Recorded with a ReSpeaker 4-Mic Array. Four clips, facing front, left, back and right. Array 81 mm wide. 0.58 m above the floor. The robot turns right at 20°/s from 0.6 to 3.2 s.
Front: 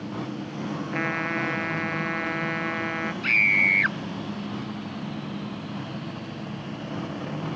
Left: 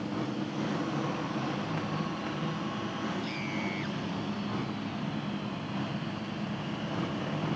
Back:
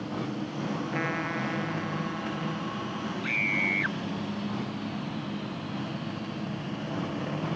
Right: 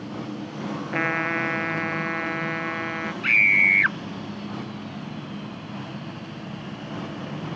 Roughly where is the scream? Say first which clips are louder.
Right 12 dB, front 7 dB; right.